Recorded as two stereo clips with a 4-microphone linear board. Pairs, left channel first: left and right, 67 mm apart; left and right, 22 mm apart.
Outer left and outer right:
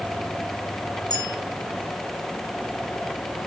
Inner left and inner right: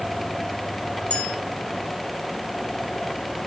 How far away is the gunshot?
No gunshot in this recording.